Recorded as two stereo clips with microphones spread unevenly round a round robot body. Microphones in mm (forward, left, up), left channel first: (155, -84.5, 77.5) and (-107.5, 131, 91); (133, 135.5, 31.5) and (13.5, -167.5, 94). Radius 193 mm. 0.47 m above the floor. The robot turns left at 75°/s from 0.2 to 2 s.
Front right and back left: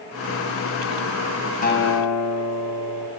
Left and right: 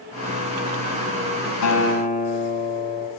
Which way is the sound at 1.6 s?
30° left.